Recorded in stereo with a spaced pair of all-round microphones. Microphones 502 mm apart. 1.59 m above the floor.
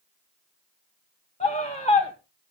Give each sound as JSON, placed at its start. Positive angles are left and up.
{"t": 1.4, "sound": "a scream", "side_deg": 15, "distance_m": 1.8}